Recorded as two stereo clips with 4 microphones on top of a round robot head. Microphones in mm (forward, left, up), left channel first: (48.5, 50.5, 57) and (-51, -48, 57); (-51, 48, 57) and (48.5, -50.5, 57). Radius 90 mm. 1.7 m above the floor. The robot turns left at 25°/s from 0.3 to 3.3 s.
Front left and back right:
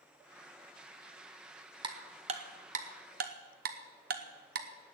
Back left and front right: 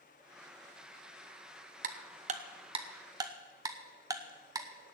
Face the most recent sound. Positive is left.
turn(degrees=-110)